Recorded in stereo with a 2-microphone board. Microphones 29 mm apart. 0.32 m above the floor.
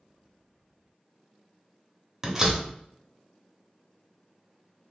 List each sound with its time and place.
2.2 s a door slam: 20° right (ahead or behind), 1.0 m